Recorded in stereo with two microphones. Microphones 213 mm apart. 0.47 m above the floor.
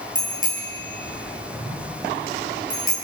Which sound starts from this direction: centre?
A bicycle bell, at 0.1 s.